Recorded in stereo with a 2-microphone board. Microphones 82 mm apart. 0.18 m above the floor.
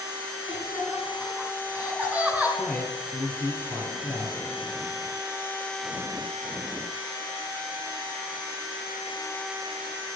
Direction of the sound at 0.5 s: 10° right (ahead or behind).